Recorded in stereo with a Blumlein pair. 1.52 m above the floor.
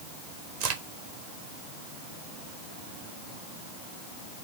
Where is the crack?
50° right, 1.2 m.